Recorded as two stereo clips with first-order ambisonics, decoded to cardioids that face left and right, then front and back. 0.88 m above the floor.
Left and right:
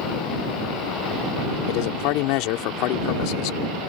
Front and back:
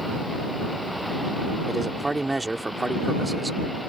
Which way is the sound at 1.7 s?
100° left.